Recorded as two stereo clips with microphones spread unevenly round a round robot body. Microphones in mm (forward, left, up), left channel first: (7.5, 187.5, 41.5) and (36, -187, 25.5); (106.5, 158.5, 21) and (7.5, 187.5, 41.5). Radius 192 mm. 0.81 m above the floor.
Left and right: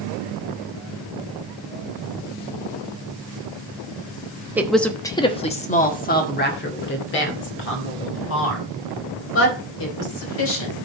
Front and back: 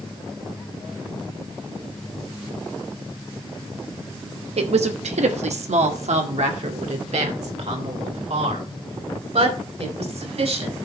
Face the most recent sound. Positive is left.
turn(degrees=150)